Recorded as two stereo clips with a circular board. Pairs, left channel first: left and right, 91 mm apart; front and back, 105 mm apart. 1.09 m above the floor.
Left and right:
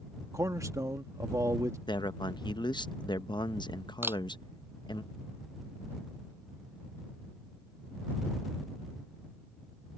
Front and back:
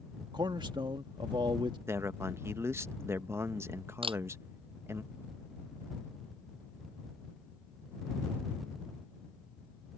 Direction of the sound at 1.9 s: 115° left.